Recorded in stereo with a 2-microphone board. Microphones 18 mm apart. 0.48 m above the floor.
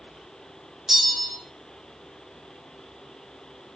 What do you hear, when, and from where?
0.9 s a bell: 25° right (ahead or behind), 0.6 m